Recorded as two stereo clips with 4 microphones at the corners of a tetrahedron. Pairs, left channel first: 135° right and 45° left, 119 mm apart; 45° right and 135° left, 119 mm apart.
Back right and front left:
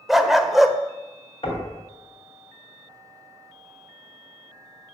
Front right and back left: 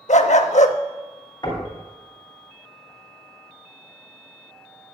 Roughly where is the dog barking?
Ahead right.